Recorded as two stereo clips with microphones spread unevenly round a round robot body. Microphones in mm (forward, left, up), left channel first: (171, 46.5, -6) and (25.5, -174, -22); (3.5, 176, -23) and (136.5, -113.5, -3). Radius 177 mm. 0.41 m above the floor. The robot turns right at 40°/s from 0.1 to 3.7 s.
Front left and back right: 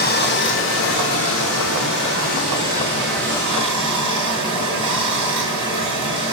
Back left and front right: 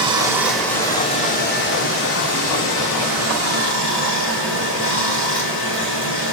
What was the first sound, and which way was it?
Running water, 10° left.